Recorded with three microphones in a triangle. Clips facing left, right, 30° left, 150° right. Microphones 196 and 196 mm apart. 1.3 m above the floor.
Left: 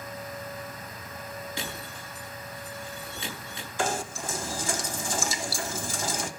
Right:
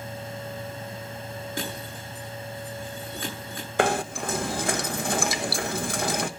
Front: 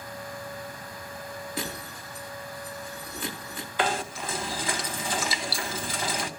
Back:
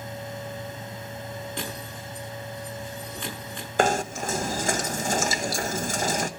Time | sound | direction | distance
1.6 | breaking glass | 55° right | 9.5 m
3.8 | knocking | 110° right | 1.1 m